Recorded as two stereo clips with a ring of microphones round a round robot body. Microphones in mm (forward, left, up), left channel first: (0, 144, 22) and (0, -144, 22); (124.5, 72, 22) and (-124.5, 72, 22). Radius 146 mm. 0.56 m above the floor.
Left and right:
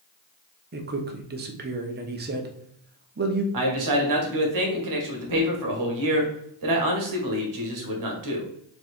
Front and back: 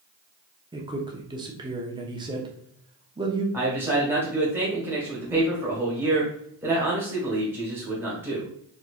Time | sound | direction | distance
0.7 | a man speaking | 120° right | 0.9 m
3.5 | a man speaking | 100° right | 1.6 m